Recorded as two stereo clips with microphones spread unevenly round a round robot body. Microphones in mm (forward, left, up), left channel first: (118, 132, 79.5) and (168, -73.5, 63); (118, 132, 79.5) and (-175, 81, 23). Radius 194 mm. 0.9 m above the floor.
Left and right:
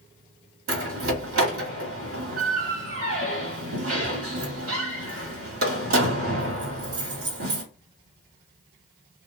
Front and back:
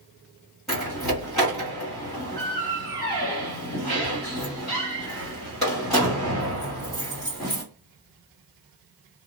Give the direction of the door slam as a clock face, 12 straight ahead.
3 o'clock.